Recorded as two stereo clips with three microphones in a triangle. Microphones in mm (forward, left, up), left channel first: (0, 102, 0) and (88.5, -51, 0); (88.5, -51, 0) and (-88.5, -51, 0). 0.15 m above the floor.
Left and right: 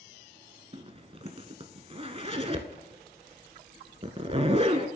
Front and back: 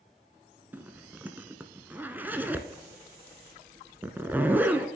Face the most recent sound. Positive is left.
turn(degrees=-105)